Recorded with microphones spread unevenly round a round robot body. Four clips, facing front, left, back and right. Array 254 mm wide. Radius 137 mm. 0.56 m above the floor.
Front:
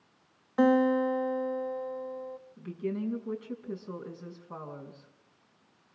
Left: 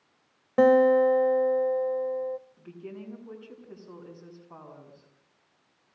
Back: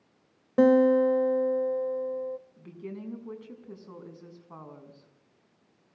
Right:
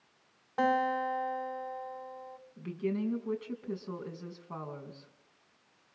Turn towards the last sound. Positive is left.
turn(degrees=-110)